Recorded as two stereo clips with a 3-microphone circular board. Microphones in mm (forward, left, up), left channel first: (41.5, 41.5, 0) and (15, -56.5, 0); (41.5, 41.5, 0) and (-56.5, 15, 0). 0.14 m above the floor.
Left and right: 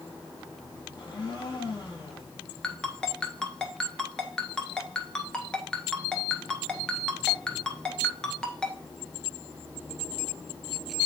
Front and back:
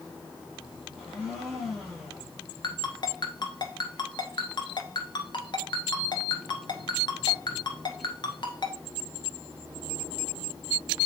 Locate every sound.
0.9 s a blender: 110° left, 4.5 m
2.6 s a ringtone: 5° right, 1.3 m